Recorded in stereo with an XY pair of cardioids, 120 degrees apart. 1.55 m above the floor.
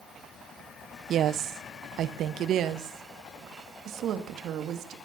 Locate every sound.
1.1 s a woman speaking: 60° right, 0.8 m; by 5.0 s 65° right, 3 m